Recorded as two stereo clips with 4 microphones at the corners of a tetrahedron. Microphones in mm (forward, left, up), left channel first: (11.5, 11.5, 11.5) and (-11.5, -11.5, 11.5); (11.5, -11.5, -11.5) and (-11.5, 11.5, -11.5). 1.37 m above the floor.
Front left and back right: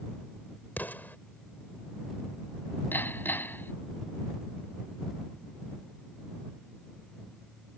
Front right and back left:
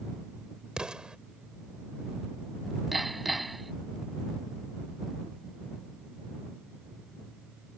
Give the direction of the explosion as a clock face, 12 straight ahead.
10 o'clock.